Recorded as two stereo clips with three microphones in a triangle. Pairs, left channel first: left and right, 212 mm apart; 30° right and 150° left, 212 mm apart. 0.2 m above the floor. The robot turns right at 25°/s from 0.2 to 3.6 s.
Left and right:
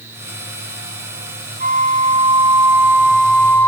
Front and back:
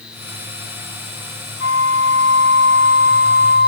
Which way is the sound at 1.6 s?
40° right.